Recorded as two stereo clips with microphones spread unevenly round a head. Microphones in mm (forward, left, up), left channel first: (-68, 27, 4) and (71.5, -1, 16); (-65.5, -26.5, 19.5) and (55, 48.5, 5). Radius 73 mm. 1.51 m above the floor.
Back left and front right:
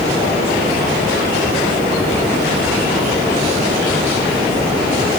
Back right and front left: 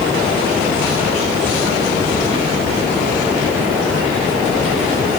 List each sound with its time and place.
Only background noise.